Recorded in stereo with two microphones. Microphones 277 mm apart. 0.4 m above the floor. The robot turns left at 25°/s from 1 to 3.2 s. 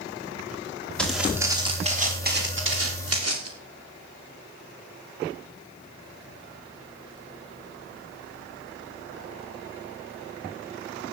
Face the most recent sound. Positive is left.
turn(degrees=-65)  # may be behind; listen again after turning